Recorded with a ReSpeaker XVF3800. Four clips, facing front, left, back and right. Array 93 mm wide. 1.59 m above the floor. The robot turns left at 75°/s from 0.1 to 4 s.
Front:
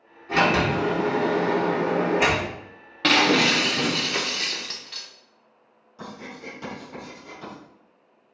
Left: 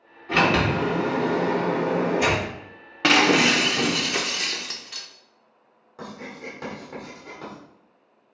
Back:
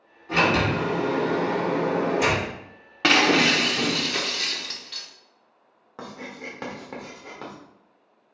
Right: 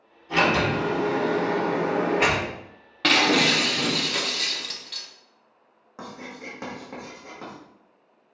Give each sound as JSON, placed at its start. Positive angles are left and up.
{"t": 0.3, "sound": "a sliding door", "azimuth_deg": 100, "distance_m": 2.5}
{"t": 3.0, "sound": "breaking glass", "azimuth_deg": 135, "distance_m": 0.7}
{"t": 6.0, "sound": "writing", "azimuth_deg": -160, "distance_m": 1.7}